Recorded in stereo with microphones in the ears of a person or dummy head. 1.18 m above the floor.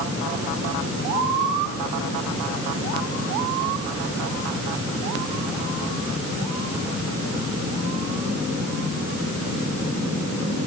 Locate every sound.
Only background noise.